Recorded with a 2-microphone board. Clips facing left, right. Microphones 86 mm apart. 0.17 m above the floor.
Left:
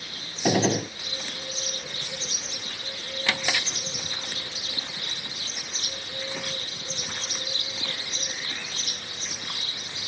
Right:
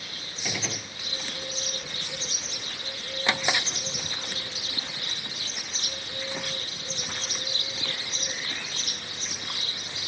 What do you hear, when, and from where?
0.5 s a gunshot: 50° left (ahead or behind)
3.3 s a drawer: 20° right (ahead or behind)